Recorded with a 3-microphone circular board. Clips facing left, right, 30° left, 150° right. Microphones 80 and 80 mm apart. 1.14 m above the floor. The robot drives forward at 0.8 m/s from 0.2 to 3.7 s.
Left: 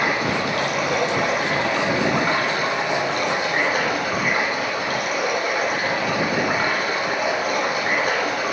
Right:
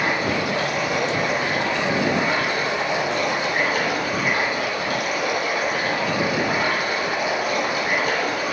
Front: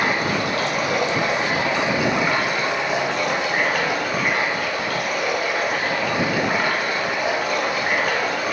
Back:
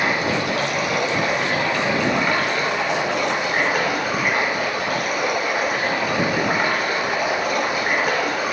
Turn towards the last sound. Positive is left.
turn(degrees=130)